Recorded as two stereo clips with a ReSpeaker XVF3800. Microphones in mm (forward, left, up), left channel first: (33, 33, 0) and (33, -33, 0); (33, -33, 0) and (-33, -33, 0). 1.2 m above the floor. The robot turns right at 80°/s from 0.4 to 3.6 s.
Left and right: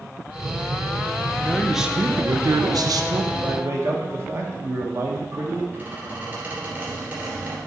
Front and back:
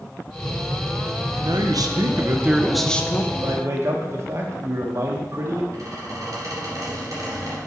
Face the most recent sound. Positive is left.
turn(degrees=-150)